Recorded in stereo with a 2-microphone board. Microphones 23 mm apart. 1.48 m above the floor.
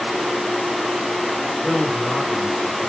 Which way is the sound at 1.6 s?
25° left (ahead or behind).